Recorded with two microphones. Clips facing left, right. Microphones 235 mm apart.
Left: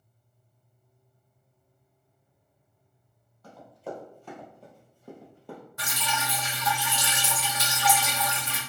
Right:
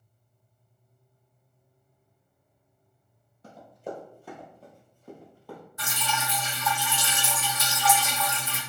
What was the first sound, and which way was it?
Running footsteps, 25° right (ahead or behind).